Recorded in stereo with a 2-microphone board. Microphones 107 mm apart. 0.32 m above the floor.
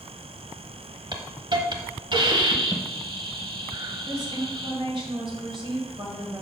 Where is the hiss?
45° right (ahead or behind), 1.0 m.